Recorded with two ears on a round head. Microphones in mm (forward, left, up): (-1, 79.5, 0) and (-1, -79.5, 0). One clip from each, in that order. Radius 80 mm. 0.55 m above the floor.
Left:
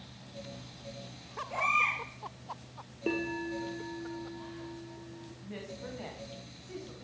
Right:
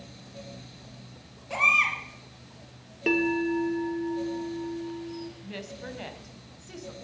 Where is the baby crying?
70° right (ahead or behind), 5.5 m.